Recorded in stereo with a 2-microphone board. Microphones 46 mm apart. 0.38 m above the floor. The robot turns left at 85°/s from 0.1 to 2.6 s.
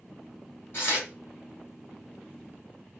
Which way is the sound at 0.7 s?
55° left (ahead or behind).